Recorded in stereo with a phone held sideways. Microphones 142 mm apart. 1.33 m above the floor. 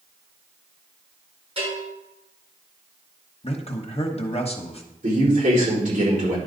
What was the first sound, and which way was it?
A bell, 40° right (ahead or behind).